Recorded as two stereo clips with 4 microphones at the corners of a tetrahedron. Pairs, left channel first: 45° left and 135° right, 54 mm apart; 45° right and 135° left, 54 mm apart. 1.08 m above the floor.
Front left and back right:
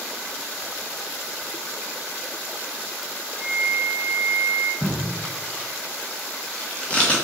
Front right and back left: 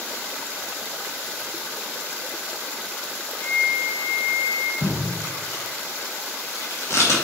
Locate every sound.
3.4 s a flute: 25° right, 3 m
4.8 s tape being pulled: 20° right, 2.5 m